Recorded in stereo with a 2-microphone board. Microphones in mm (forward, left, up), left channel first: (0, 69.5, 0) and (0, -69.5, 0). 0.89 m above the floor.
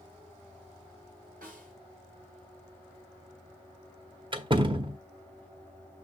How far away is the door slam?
About 0.8 m.